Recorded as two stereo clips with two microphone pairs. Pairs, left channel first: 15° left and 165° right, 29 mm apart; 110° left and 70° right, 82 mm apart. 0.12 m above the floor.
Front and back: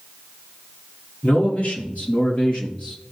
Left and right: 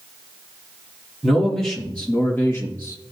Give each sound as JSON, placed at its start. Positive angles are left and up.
{"t": 1.2, "sound": "a man speaking", "azimuth_deg": 20, "distance_m": 3.5}